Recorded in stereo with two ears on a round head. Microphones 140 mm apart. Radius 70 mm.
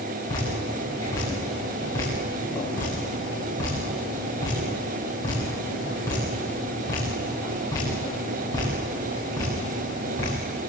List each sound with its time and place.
0.3 s dripping: 20° left (ahead or behind), 8 m